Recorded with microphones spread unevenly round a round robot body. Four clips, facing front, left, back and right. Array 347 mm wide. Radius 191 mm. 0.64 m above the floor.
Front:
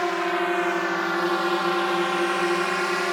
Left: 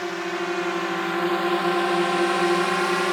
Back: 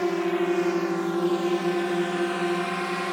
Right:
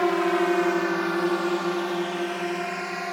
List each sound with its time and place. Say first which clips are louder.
0.0 s a drone: right 6 dB, even; 140° right; by 3.1 s 95° left